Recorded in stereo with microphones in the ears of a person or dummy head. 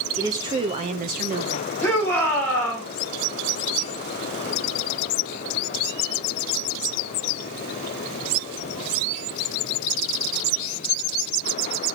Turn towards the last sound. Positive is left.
turn(degrees=10)  # may be behind; listen again after turning